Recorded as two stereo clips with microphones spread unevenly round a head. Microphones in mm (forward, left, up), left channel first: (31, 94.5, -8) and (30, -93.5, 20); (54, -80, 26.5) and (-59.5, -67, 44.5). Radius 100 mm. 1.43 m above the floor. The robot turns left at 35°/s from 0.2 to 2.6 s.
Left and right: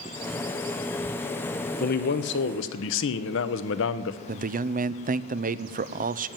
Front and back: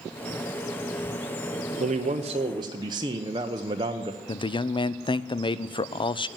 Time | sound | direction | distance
1.8 | a man speaking | 135° left | 0.9 m
4.3 | a man speaking | 40° right | 0.6 m